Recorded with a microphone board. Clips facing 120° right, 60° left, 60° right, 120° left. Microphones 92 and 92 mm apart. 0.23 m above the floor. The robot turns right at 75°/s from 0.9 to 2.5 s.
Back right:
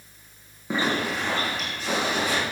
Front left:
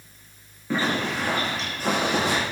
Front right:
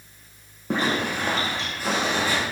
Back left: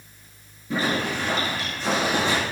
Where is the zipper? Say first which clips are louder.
Even, front right 1 dB; 50° right, 8.5 m; by 2.4 s 60° left, 8.5 m.